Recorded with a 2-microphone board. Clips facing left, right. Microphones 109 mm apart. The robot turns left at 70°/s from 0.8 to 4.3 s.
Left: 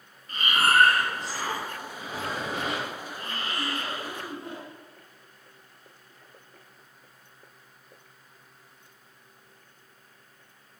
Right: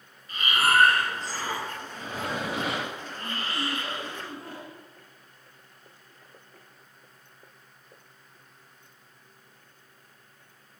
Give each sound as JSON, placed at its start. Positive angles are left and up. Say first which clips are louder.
{"t": 0.3, "sound": "breathing", "louder": "even", "azimuth_deg": 45, "distance_m": 4.0}